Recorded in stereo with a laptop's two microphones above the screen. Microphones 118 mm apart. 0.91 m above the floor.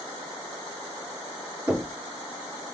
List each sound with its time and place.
1.7 s knocking: 30° right (ahead or behind), 1.8 m